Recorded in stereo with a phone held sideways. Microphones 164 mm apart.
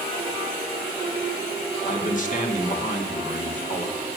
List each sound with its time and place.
1.9 s a man speaking: 50° left (ahead or behind), 3 m